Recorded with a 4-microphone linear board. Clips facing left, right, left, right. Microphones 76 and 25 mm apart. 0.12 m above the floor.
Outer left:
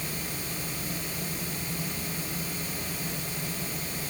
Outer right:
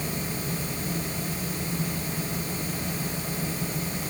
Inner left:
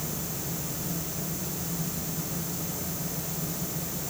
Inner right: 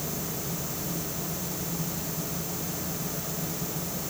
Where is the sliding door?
I don't hear a sliding door.